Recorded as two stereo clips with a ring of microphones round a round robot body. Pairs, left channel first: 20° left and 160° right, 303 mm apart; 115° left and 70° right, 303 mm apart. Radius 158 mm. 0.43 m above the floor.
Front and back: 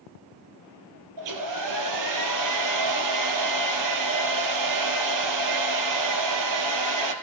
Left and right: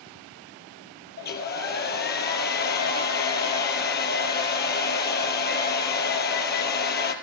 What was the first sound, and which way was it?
A hair dryer, 170° left.